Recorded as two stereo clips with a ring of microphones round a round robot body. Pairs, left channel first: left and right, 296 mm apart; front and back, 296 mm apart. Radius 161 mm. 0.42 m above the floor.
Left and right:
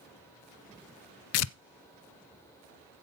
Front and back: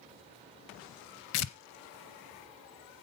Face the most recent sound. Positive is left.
turn(degrees=50)